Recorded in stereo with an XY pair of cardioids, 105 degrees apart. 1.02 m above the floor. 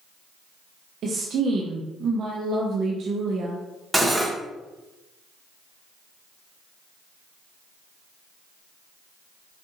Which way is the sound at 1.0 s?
60° right.